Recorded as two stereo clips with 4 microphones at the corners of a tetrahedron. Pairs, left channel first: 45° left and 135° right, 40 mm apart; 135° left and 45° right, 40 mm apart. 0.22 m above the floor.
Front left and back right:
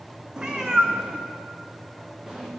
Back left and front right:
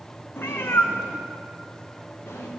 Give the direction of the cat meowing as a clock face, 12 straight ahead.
7 o'clock.